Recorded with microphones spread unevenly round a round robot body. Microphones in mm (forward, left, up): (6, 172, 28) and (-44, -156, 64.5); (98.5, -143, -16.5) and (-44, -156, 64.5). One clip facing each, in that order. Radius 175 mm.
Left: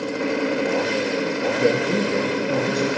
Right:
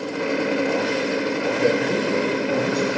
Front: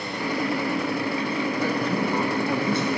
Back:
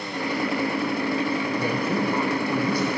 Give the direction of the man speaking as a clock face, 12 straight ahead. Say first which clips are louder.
Left 1 dB, even; 10 o'clock.